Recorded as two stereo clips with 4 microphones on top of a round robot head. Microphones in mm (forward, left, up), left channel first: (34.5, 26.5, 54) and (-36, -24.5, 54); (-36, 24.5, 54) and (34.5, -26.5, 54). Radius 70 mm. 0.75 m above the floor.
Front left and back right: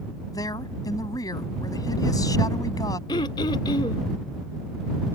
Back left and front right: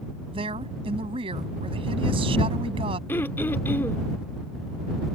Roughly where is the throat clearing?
Left.